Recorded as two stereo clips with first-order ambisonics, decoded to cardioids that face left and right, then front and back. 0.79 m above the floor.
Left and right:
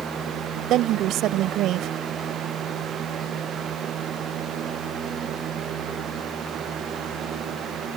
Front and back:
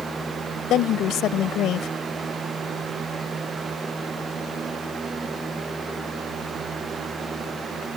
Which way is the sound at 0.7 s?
45° right.